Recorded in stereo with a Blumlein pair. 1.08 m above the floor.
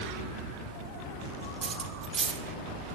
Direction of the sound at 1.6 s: 20° right.